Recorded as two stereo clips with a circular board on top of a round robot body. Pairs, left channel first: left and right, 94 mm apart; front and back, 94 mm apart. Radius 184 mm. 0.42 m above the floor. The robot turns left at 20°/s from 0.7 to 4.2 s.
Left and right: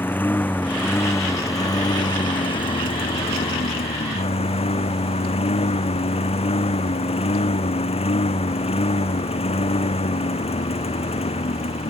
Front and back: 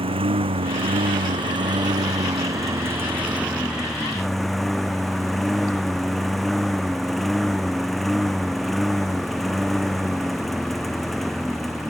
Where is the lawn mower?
160° left; by 11.9 s 90° left.